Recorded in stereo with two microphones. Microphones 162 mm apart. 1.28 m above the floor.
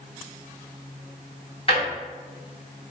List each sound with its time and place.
1.7 s a drawer: 35° left (ahead or behind), 1.0 m